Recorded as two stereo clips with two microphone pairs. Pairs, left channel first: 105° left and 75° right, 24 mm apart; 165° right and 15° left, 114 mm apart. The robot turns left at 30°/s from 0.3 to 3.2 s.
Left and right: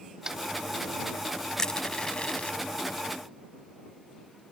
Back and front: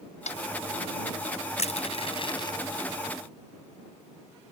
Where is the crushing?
170° left; by 2.6 s 140° left.